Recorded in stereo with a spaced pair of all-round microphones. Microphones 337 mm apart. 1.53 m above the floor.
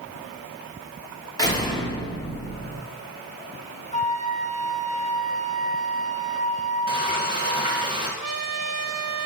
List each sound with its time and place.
1.4 s a door slam: 10° left (ahead or behind), 2.5 m
3.9 s a flute: 20° left (ahead or behind), 1.0 m
6.9 s frying: 15° right (ahead or behind), 3 m
8.2 s a trumpet: 50° right (ahead or behind), 1.4 m